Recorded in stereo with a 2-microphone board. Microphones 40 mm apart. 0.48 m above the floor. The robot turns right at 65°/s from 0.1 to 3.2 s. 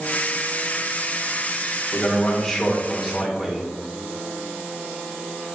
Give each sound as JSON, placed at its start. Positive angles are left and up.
{"t": 1.9, "sound": "a man speaking", "azimuth_deg": 120, "distance_m": 1.7}